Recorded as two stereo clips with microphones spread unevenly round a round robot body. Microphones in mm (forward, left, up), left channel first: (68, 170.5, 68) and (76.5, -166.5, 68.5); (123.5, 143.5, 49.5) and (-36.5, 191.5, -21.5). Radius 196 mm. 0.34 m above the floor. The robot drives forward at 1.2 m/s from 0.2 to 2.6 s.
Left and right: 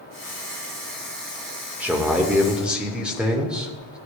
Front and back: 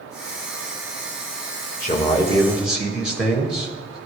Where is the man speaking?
10° right, 1.1 m; by 4.0 s 170° right, 1.2 m.